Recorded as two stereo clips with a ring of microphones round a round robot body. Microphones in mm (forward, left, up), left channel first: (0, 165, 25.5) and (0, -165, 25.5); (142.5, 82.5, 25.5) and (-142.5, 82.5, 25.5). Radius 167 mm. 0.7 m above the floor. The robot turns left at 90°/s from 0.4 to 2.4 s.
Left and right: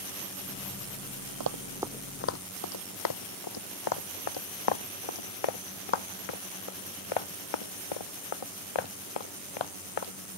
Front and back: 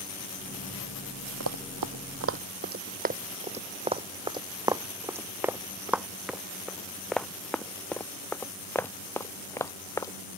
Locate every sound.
1.4 s running footsteps: 125° right; by 10.1 s 80° left